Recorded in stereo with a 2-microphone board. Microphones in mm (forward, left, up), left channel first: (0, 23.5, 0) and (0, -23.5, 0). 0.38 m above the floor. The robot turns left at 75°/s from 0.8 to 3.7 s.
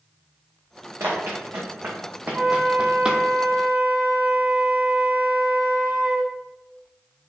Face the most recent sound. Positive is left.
turn(degrees=-125)